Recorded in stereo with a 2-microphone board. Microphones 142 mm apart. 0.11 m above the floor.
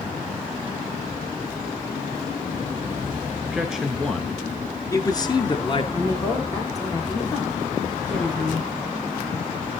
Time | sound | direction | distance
3.5 | a man speaking | 10° right (ahead or behind) | 1.4 m
5.9 | a woman speaking | 25° left (ahead or behind) | 6 m